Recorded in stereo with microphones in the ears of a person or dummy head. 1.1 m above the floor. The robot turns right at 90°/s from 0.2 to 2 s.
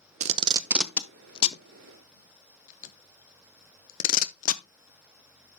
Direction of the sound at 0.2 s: 35° right (ahead or behind).